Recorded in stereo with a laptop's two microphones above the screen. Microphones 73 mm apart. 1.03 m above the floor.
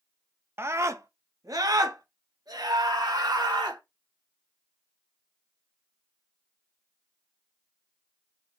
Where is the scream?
35° right (ahead or behind), 0.7 m; by 3.8 s 65° right (ahead or behind), 2.5 m.